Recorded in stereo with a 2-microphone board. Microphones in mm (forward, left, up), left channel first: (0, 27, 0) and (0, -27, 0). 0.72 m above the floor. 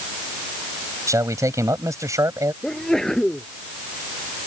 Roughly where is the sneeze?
Centre.